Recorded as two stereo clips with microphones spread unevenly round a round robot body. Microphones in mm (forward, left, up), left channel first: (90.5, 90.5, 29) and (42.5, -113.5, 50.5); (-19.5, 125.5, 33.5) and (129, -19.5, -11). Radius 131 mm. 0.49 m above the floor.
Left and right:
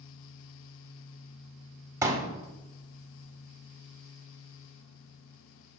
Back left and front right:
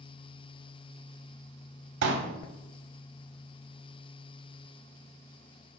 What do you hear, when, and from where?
2.0 s a pop: 25° right, 1.8 m